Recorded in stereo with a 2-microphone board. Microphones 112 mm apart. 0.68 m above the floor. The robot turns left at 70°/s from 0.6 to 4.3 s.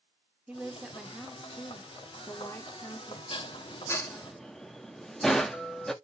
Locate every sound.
0.5 s a woman speaking: 10° right (ahead or behind), 1.0 m; by 3.2 s 10° left (ahead or behind), 1.0 m
3.3 s dishes clattering: 50° left (ahead or behind), 0.6 m; by 5.9 s 5° left (ahead or behind), 0.6 m